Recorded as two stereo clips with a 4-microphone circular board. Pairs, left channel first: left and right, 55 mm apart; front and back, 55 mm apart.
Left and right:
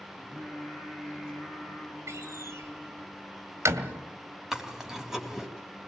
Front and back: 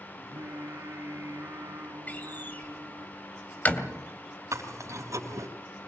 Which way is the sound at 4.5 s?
170° right.